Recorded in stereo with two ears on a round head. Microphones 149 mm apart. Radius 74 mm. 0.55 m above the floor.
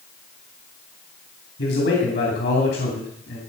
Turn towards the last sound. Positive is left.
turn(degrees=70)  # may be behind; listen again after turning